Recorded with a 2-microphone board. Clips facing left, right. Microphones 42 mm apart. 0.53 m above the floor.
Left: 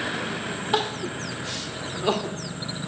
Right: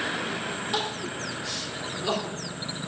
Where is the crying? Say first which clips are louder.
Left 7 dB; 40° left (ahead or behind), 1.3 m.